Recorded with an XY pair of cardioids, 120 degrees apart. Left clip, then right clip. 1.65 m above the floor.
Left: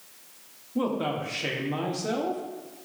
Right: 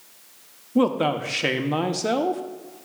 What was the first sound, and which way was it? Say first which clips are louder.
A man speaking: right 7 dB; 45° right.